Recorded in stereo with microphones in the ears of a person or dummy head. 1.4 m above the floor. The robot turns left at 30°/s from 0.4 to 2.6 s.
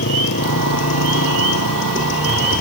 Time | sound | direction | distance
0.0 | a motorcycle | 115° left | ?